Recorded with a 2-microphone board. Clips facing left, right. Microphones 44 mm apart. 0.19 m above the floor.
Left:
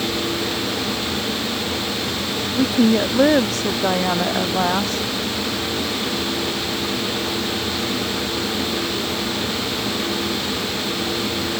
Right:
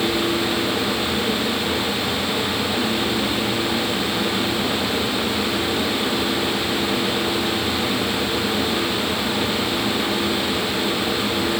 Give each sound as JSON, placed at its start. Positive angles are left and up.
{"t": 2.5, "sound": "a woman speaking", "side_deg": 80}